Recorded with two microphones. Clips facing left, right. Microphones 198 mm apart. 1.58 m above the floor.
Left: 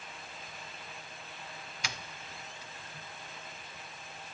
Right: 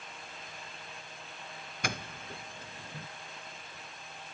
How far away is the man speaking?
No man speaking in this recording.